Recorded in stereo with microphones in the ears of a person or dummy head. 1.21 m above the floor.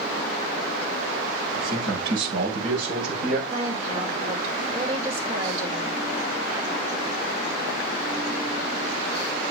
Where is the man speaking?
60° right (ahead or behind), 6.5 m; by 3.4 s 50° right (ahead or behind), 5.5 m.